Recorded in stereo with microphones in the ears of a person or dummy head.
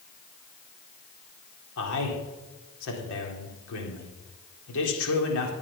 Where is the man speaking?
80° left, 3.5 m.